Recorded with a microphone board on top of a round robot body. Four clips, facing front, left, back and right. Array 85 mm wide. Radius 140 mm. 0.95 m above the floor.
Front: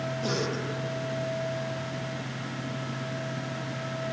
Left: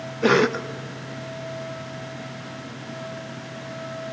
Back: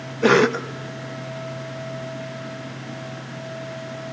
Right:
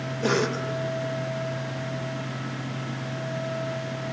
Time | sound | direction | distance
0.2 | a cough | 155° left | 0.7 m